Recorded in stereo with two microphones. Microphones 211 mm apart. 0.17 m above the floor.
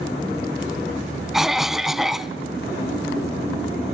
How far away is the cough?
About 1.2 m.